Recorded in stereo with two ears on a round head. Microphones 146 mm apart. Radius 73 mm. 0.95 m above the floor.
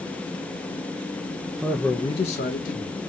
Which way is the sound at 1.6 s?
10° right (ahead or behind).